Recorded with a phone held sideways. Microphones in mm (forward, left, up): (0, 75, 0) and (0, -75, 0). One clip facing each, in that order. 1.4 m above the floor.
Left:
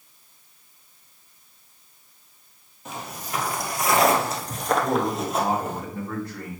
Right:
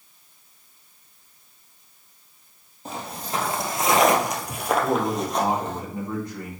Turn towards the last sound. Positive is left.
turn(degrees=-20)  # may be behind; listen again after turning